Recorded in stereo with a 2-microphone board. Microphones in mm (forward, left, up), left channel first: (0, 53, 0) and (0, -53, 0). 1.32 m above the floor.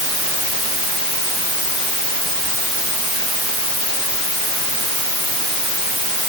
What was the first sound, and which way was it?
Only background noise.